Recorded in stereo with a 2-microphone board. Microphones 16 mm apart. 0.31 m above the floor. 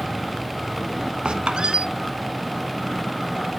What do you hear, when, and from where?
1.2 s a squeak: 75° right (ahead or behind), 0.9 m